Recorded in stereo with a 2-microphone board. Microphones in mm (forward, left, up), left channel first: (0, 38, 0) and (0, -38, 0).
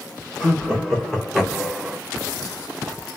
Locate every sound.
0.4 s laughter: 10° left (ahead or behind), 2.0 m; by 2.0 s 15° right (ahead or behind), 0.5 m